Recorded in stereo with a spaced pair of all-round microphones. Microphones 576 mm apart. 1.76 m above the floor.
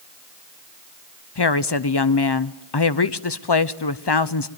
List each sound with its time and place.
1.4 s a woman speaking: 45° left (ahead or behind), 0.8 m